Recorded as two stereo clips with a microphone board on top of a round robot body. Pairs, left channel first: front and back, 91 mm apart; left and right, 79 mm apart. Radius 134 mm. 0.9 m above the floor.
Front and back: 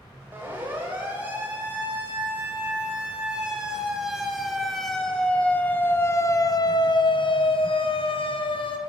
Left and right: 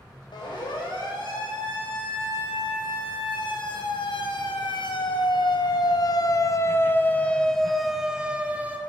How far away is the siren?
About 5 m.